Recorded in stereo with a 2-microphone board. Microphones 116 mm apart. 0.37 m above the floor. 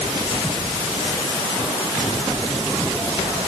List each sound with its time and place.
Only background noise.